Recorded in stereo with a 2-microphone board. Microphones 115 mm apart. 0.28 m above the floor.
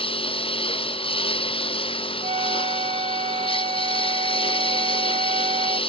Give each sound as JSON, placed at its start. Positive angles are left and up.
{"t": 0.0, "sound": "a lawn mower", "side_deg": 50}
{"t": 2.2, "sound": "a flute", "side_deg": -65}